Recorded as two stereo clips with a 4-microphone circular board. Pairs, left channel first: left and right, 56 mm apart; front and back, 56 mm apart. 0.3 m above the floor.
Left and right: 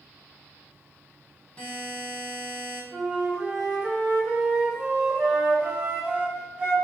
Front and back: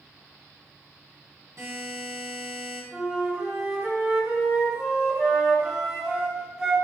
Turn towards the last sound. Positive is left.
turn(degrees=-120)